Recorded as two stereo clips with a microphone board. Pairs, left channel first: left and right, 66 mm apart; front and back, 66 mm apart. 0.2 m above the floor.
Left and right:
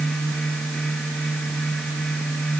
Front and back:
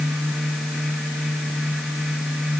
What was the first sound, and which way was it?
Only background noise.